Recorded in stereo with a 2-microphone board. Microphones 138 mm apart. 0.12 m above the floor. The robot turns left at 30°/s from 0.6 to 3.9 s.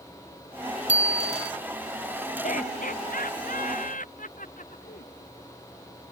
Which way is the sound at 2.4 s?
65° left (ahead or behind).